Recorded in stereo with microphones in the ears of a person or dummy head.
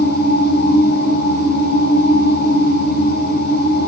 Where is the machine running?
60° left (ahead or behind), 6 m.